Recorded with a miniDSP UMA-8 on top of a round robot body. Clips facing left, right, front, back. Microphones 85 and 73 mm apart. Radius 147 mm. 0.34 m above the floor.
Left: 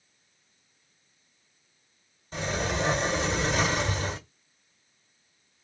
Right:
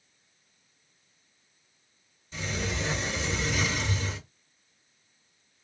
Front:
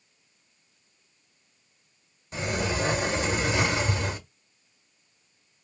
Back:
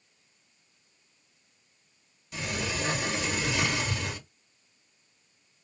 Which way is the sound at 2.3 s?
55° left.